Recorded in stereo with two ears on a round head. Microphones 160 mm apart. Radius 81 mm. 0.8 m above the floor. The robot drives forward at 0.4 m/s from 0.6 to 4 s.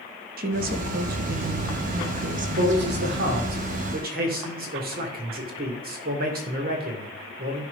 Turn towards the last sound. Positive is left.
turn(degrees=-55)  # may be behind; listen again after turning